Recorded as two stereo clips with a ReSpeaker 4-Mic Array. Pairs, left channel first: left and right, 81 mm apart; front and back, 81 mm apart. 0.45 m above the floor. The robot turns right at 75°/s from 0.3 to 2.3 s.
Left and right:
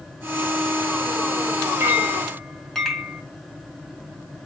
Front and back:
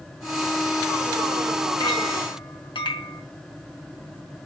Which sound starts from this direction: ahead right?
A clink, at 1.8 s.